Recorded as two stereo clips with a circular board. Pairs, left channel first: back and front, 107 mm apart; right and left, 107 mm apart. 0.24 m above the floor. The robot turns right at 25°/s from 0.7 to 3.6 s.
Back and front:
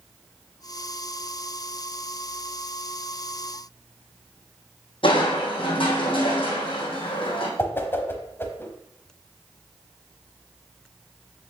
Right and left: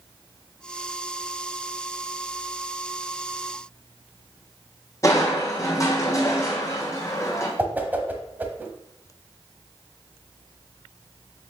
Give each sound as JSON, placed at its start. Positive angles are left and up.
{"t": 5.0, "sound": "crushing", "azimuth_deg": -150, "distance_m": 2.0}
{"t": 7.6, "sound": "a whoosh", "azimuth_deg": 145, "distance_m": 0.8}